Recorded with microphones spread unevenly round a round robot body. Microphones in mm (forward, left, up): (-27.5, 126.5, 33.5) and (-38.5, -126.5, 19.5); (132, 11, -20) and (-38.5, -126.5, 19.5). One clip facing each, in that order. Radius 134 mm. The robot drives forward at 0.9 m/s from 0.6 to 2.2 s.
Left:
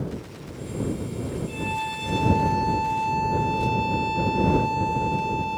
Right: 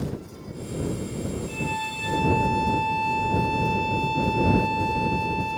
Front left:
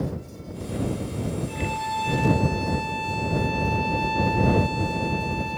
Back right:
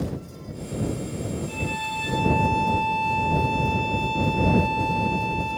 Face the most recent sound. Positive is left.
turn(degrees=175)